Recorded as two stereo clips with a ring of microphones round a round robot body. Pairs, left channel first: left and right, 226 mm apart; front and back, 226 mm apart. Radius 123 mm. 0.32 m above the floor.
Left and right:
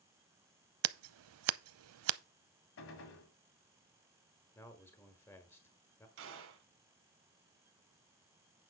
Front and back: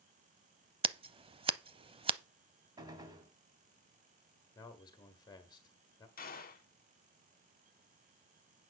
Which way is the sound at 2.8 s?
105° left.